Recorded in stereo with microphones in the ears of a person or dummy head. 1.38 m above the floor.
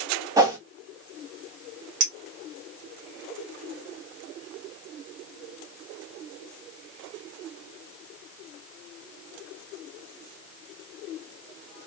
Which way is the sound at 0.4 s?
15° right (ahead or behind).